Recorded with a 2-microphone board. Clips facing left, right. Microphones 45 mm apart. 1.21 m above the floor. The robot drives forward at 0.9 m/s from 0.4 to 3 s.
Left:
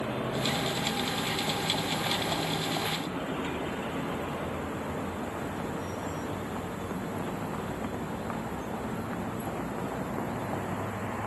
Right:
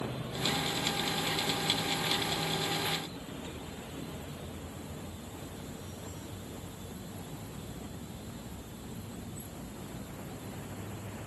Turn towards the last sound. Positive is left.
turn(degrees=65)  # may be behind; listen again after turning